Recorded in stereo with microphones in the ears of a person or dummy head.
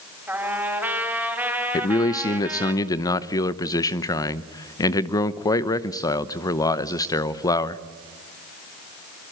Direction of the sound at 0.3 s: 15° right (ahead or behind).